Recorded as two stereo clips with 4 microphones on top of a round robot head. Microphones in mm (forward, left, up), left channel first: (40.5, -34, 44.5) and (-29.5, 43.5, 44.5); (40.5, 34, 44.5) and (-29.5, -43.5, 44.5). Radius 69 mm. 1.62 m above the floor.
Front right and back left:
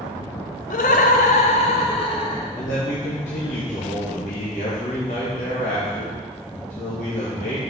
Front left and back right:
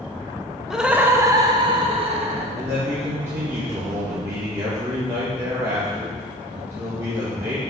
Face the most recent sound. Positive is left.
turn(degrees=-65)